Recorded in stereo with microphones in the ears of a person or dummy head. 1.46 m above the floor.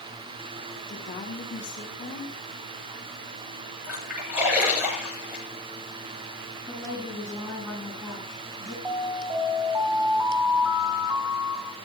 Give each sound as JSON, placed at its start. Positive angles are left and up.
{"t": 0.9, "sound": "a woman speaking", "side_deg": 35, "distance_m": 5.0}
{"t": 3.8, "sound": "a splash", "side_deg": -10, "distance_m": 8.0}
{"t": 6.7, "sound": "a woman speaking", "side_deg": -5, "distance_m": 8.5}
{"t": 8.8, "sound": "an alarm", "side_deg": -20, "distance_m": 6.5}